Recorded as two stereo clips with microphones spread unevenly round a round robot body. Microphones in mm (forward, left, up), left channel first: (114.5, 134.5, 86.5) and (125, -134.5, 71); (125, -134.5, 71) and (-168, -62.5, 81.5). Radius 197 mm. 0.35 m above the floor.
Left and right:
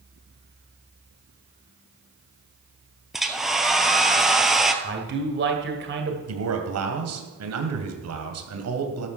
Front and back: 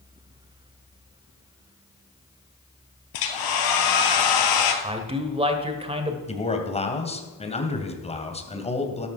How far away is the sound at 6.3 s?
About 2.5 m.